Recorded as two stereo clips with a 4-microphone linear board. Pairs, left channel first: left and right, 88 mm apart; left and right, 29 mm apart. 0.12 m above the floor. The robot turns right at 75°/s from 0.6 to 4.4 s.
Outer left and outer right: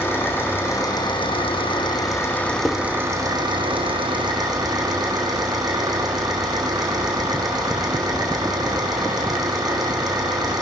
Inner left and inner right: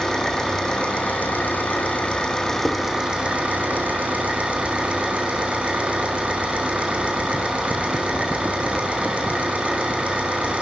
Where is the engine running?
25° left, 3.5 m; by 10.6 s 50° right, 3.5 m.